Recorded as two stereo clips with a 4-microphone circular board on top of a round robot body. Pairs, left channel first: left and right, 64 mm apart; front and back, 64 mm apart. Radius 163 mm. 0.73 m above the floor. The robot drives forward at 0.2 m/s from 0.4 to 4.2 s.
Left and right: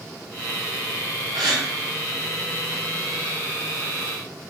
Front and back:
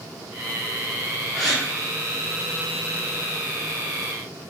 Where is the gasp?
90° right, 0.6 m; by 1.6 s 95° right, 0.6 m.